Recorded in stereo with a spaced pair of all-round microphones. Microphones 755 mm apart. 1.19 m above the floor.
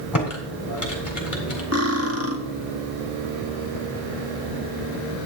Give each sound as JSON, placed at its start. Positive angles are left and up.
{"t": 0.1, "sound": "typing on a keyboard", "side_deg": 25, "distance_m": 2.5}
{"t": 1.7, "sound": "cutlery clinking", "side_deg": -20, "distance_m": 0.8}